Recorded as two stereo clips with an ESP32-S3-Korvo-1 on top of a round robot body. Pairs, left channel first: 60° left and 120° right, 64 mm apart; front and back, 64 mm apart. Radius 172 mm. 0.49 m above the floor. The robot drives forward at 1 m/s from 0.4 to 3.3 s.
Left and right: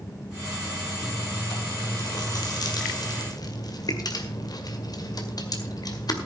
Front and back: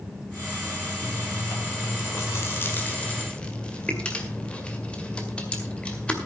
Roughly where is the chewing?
Ahead left.